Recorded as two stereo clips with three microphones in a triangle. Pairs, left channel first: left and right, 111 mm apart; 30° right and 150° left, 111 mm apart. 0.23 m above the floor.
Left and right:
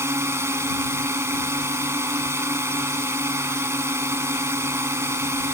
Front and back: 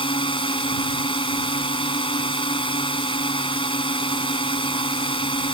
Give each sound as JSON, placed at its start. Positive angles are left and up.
{"t": 0.0, "sound": "a drone", "azimuth_deg": -30}